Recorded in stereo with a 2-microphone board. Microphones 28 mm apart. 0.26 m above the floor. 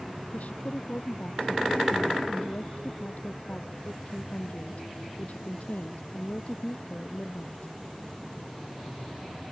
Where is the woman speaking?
65° left (ahead or behind).